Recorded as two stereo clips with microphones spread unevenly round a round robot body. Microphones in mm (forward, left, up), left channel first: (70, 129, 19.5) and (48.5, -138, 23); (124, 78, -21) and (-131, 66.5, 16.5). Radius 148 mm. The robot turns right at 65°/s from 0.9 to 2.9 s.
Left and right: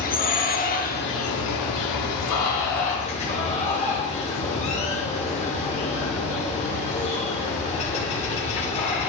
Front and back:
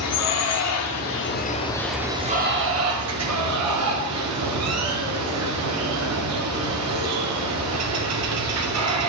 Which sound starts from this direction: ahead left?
Running water, at 0.0 s.